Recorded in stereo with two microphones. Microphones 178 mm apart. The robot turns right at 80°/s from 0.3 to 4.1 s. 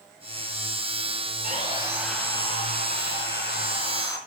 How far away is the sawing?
About 4.5 m.